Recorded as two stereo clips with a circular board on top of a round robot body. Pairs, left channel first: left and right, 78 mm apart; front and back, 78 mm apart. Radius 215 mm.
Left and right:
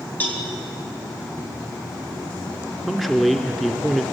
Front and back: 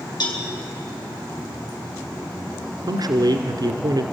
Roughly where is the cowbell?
Ahead left.